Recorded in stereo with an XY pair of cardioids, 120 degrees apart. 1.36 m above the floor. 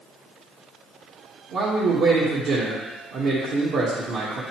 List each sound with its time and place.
1.5 s a man speaking: 60° right, 1.5 m